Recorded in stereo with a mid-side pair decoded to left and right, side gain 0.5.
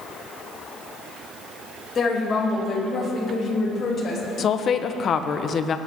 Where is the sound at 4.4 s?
50° left, 1.4 m.